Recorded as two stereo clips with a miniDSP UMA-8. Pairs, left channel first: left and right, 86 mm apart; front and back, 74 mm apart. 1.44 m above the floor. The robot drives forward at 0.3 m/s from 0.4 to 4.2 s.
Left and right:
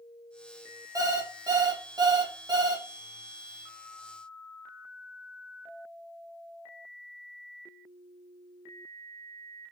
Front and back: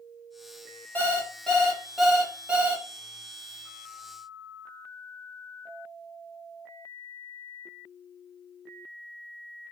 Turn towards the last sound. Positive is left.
turn(degrees=-140)